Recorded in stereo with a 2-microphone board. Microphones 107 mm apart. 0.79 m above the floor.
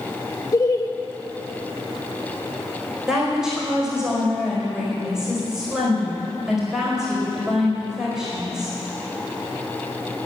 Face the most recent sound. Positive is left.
turn(degrees=-5)  # may be behind; listen again after turning